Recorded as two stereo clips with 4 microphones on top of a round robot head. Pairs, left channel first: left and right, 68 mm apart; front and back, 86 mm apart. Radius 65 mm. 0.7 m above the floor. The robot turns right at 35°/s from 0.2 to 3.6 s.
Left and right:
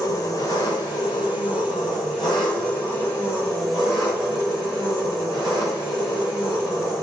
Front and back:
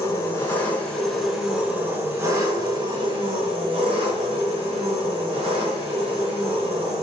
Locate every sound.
0.0 s an engine running: 60° left, 4 m; by 7.0 s straight behind, 4 m